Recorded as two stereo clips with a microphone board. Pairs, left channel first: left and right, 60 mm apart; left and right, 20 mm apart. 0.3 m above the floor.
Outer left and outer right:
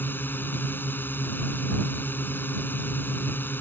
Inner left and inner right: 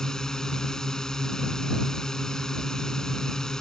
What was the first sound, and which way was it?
A drone, 35° left (ahead or behind).